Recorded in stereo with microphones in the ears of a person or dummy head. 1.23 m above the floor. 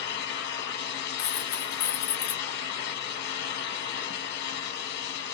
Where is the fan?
55° left (ahead or behind), 1.1 m.